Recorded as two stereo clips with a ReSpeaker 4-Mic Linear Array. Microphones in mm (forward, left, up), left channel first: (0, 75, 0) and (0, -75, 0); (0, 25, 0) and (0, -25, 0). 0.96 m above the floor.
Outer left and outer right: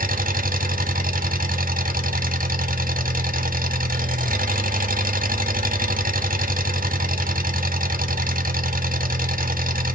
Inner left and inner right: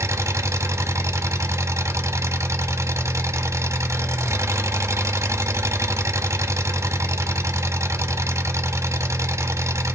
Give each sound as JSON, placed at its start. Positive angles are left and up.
{"t": 0.0, "sound": "an engine running", "side_deg": -80, "distance_m": 0.8}